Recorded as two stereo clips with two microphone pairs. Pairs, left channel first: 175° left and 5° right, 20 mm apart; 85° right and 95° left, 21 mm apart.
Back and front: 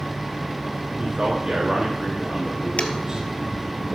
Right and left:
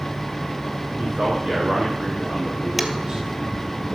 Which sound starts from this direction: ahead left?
A man speaking, at 1.0 s.